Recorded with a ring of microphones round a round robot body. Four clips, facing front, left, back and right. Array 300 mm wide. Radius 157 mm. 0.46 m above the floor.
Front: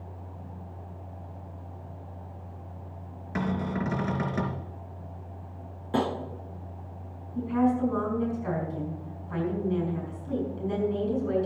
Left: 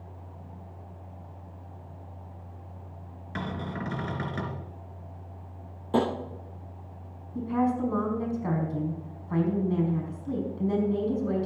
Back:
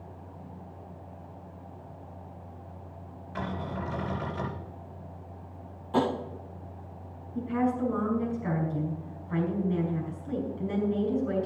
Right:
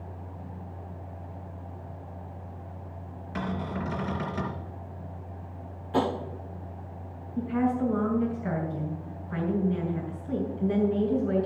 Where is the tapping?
65° left, 7 m.